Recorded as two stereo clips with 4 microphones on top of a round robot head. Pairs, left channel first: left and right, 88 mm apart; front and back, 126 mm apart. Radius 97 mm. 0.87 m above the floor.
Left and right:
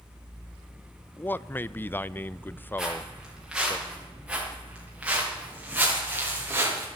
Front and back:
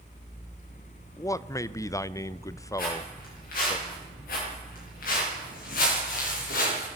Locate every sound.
1.2 s a man speaking: 40° left, 0.6 m
2.8 s footsteps: 5° right, 8.5 m; by 6.9 s 25° right, 6 m